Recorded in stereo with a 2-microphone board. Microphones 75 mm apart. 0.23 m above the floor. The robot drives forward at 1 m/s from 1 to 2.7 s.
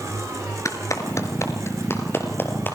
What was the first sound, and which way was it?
A clap, 45° left (ahead or behind).